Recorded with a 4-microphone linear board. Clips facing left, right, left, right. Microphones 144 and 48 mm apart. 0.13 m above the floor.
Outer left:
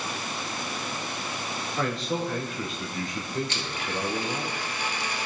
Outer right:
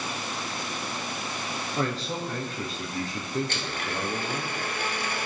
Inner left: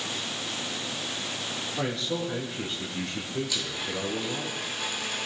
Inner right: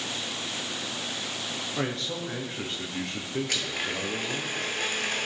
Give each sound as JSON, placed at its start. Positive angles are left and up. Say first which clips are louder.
{"t": 1.8, "sound": "a man speaking", "louder": "outer left 2 dB, inner left 2 dB", "side_deg": -35, "distance_m": 2.0}
{"t": 3.5, "sound": "a blender", "louder": "even, inner right 2 dB", "side_deg": -50, "distance_m": 1.0}